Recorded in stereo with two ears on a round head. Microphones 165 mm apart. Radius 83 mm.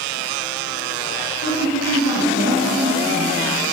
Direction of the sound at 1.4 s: 75° left (ahead or behind).